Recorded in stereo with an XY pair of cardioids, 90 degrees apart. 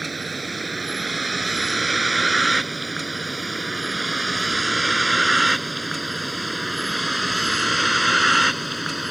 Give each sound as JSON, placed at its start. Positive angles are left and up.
{"t": 0.0, "sound": "a vehicle", "azimuth_deg": -20}